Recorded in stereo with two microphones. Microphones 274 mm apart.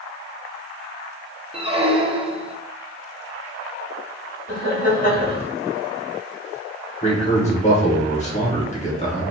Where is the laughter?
30° left (ahead or behind), 1.9 m.